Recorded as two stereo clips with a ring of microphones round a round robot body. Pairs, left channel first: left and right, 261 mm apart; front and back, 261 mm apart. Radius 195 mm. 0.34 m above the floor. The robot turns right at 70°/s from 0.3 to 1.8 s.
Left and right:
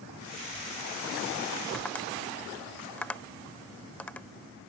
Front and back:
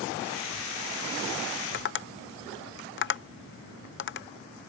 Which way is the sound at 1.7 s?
5° left.